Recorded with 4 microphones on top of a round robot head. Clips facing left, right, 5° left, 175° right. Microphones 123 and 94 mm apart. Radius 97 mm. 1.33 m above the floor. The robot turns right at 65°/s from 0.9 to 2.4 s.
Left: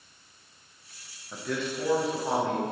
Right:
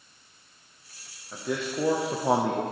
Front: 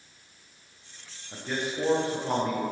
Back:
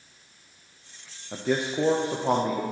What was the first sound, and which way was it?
A man speaking, straight behind.